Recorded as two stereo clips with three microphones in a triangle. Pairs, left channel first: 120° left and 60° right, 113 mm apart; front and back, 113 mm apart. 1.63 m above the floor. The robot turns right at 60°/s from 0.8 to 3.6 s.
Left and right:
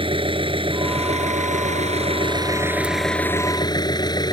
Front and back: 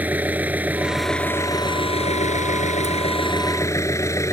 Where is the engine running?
105° right; by 4.3 s 65° left.